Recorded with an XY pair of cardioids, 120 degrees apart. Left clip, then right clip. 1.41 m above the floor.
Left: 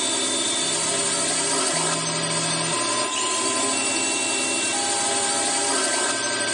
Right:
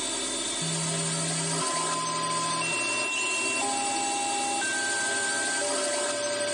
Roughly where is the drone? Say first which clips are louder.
Left 7 dB; ahead left.